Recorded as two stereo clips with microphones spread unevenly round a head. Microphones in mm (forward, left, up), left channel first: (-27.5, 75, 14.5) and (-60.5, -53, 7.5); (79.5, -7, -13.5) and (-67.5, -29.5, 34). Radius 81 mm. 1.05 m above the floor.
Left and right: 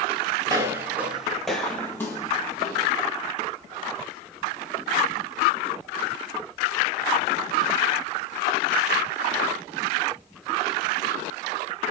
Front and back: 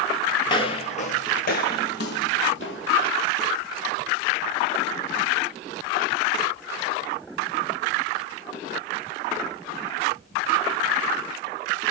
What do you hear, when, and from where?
0.5 s footsteps: 60° right, 1.1 m; by 3.1 s 15° left, 2.0 m